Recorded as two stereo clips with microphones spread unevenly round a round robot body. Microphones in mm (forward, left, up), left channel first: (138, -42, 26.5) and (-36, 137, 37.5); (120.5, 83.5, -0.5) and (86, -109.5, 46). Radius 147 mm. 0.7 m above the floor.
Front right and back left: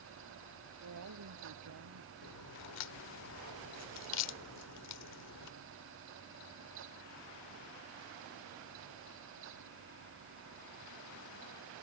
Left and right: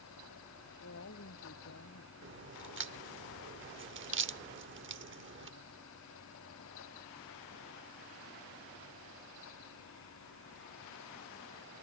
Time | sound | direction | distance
0.8 | a woman speaking | 120° left | ?
2.2 | a crack | 75° right | ?